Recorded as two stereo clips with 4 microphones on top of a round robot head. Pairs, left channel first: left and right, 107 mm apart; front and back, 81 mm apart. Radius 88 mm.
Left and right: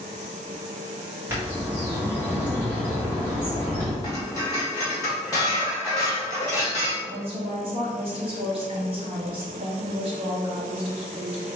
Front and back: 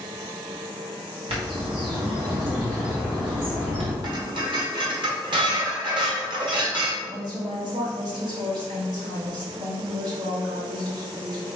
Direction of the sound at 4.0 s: 155° left.